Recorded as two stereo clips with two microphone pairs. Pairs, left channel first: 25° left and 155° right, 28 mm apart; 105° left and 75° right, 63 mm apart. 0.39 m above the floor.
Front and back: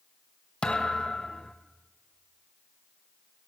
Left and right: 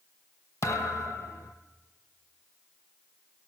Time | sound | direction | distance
0.6 | a thud | 75° left | 0.8 m